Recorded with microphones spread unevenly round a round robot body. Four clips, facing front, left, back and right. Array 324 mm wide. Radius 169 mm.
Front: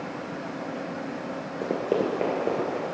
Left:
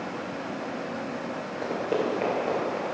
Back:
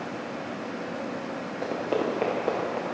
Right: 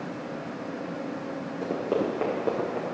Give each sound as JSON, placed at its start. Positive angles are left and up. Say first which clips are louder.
{"t": 1.6, "sound": "running footsteps", "louder": "even, front 2 dB", "azimuth_deg": -30, "distance_m": 2.5}